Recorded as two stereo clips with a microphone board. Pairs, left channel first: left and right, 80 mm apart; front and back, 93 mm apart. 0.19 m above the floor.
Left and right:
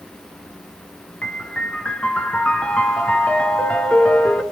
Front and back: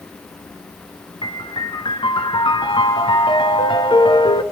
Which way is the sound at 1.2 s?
15° left.